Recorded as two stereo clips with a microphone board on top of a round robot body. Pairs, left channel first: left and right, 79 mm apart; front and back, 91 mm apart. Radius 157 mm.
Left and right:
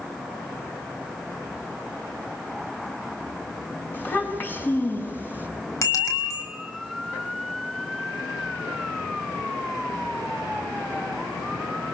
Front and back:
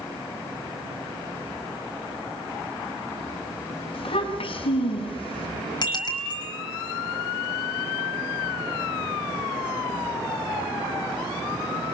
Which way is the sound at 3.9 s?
25° left.